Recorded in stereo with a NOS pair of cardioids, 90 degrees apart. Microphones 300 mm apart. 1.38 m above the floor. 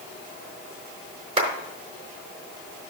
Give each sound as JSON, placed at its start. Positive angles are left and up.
{"t": 1.4, "sound": "a clap", "azimuth_deg": -20, "distance_m": 4.0}